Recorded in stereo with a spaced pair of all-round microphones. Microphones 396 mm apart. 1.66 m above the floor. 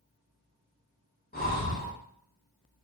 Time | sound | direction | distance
1.3 | breathing | 25° left (ahead or behind) | 0.7 m